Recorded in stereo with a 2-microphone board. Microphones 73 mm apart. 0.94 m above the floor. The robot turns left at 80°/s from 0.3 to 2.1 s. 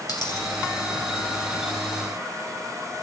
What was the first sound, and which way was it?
A dropped coin, 80° left.